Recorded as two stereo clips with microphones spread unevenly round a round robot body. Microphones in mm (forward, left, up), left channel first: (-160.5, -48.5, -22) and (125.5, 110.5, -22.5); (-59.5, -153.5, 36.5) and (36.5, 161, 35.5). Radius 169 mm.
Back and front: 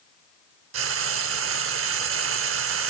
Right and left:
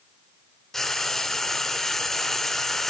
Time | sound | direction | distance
0.7 | frying | 20° right | 0.7 m